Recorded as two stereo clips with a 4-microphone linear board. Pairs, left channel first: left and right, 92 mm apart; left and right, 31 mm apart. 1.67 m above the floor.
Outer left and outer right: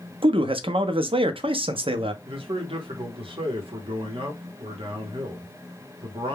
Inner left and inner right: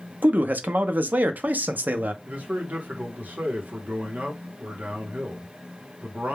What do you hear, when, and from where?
0.2 s a man speaking: 70° right (ahead or behind), 0.5 m
2.2 s a man speaking: 75° right (ahead or behind), 0.9 m